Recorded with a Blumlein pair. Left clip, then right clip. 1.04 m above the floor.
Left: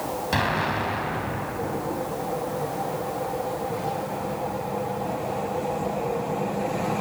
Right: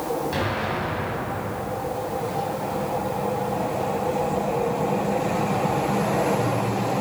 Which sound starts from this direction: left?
An explosion, at 0.3 s.